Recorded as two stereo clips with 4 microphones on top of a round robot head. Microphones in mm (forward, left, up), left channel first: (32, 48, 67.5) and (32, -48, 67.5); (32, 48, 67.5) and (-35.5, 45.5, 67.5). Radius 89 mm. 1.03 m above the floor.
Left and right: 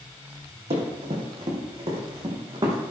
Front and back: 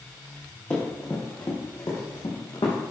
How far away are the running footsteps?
About 3 m.